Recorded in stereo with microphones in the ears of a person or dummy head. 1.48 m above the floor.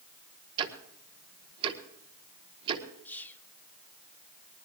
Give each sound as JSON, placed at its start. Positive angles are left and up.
{"t": 0.6, "sound": "ticking", "side_deg": -30, "distance_m": 1.4}
{"t": 3.0, "sound": "whispering", "side_deg": 10, "distance_m": 1.3}